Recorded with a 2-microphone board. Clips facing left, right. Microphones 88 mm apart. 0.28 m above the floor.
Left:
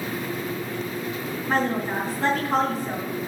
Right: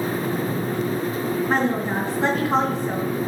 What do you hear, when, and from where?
1.5 s a woman speaking: centre (ahead or behind), 3 m